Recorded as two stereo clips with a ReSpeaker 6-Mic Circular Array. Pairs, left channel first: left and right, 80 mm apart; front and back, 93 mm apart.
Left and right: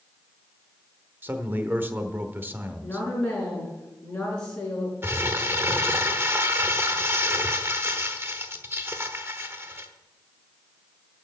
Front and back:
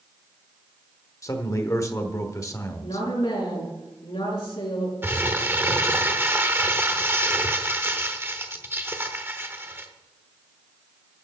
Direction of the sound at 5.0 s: 130° right.